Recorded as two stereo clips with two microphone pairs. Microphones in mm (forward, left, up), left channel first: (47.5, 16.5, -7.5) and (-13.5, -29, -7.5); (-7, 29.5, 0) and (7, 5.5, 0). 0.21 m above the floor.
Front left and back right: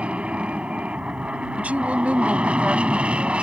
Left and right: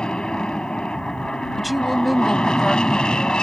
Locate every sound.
0.0 s an aircraft: 155° left
1.6 s a woman speaking: 150° right